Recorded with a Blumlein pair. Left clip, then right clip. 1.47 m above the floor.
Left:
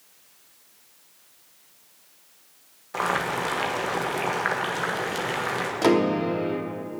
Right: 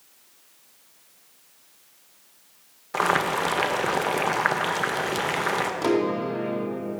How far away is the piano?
About 2.5 m.